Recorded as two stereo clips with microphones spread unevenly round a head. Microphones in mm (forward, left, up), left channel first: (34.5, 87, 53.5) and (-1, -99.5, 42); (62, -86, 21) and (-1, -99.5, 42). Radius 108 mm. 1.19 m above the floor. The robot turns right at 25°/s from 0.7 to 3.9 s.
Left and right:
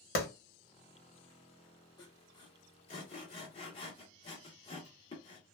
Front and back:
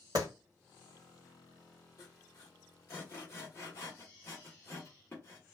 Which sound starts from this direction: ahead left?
Sawing, at 2.0 s.